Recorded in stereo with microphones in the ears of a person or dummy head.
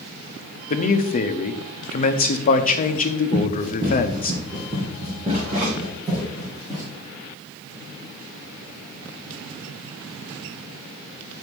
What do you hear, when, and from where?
0.7 s a man speaking: 45° left (ahead or behind), 0.8 m
3.3 s running footsteps: 45° right (ahead or behind), 5 m; by 6.9 s 5° right (ahead or behind), 5 m